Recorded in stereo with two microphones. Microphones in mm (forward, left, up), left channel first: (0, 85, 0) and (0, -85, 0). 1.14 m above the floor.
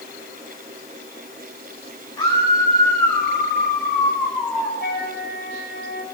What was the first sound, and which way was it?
A scream, 25° left (ahead or behind).